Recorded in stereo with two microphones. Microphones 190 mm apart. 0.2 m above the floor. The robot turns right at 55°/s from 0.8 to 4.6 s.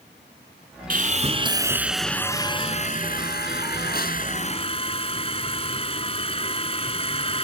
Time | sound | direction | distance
0.9 | sawing | 60° right | ?